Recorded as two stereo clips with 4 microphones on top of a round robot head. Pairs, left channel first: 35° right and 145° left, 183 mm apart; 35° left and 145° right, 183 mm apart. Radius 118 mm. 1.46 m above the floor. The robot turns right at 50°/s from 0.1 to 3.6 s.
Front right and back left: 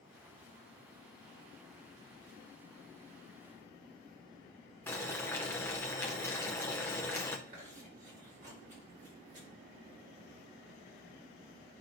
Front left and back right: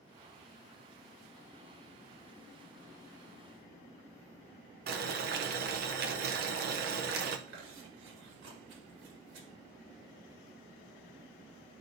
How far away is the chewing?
About 2.5 m.